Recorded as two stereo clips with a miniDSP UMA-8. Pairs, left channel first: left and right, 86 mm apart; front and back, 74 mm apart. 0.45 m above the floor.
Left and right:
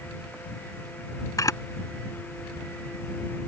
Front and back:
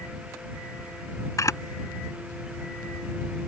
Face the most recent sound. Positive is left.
turn(degrees=45)